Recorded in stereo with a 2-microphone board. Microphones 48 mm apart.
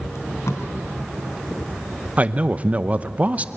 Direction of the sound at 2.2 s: 30° right (ahead or behind).